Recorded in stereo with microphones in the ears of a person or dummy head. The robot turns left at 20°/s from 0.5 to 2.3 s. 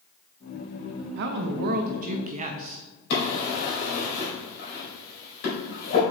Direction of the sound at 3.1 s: 60° left (ahead or behind).